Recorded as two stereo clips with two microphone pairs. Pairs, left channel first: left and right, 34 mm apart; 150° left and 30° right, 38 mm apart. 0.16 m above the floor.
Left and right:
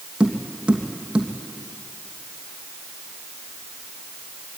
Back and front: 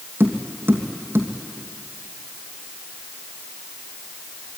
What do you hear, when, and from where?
0.2 s tapping: 25° right, 3 m